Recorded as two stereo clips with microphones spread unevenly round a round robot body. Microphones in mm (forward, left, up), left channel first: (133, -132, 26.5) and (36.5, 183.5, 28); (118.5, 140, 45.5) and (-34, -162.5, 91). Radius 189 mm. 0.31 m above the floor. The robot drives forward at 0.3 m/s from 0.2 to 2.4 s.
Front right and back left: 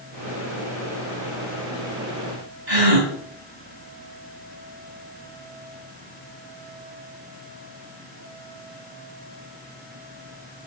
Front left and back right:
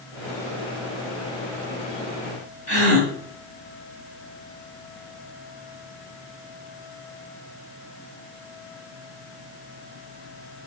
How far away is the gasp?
About 2.5 m.